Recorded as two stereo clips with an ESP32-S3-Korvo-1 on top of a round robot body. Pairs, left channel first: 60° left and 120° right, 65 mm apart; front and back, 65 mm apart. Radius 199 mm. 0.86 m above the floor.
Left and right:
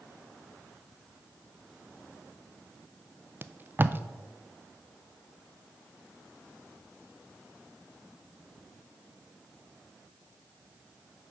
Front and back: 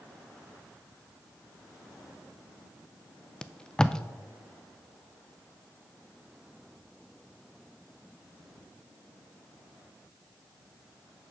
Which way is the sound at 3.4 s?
75° right.